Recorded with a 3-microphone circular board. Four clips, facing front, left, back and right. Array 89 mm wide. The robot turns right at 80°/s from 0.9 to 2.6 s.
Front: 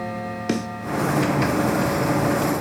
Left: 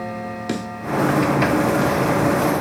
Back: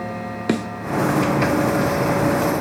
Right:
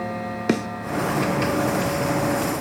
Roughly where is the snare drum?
Behind right.